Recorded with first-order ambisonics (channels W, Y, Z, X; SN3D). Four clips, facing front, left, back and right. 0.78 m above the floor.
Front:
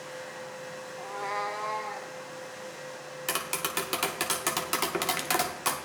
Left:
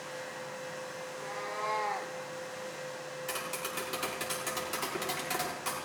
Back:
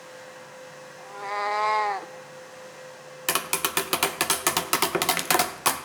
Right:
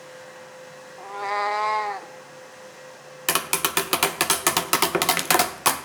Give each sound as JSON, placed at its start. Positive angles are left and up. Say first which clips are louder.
{"t": 1.0, "sound": "a cat meowing", "louder": "right 18 dB, back 3 dB", "azimuth_deg": -65, "distance_m": 0.8}
{"t": 3.3, "sound": "tapping", "louder": "right 15 dB, back 5 dB", "azimuth_deg": -115, "distance_m": 0.6}